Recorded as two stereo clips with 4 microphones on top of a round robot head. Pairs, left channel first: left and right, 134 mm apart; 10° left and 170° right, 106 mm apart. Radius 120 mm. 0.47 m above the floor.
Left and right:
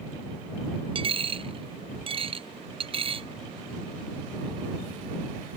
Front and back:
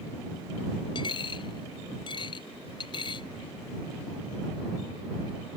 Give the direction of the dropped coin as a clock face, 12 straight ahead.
1 o'clock.